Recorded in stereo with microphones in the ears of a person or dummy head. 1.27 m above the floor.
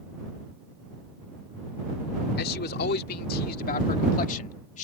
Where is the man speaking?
60° left (ahead or behind); by 4.8 s 45° left (ahead or behind).